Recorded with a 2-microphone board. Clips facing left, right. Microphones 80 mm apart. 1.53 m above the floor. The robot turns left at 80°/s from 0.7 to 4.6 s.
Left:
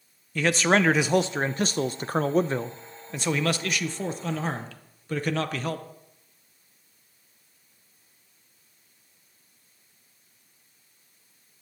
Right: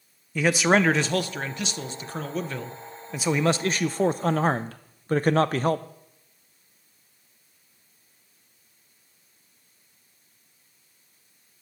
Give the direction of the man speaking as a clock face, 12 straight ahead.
6 o'clock.